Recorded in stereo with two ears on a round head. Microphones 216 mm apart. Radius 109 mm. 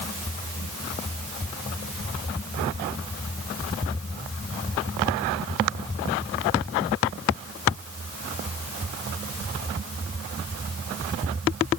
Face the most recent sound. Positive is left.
No sound to turn to.